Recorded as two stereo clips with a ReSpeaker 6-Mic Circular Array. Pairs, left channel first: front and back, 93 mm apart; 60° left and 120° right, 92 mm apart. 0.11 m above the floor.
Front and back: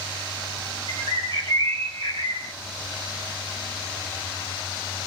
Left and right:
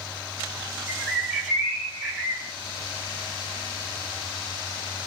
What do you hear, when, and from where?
0.9 s a bird: 160° left, 0.8 m